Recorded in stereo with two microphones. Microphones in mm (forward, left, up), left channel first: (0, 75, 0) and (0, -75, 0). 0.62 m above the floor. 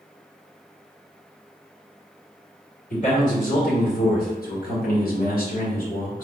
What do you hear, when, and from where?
2.9 s a man speaking: 55° left (ahead or behind), 1.7 m; by 6.2 s 60° left (ahead or behind), 1.9 m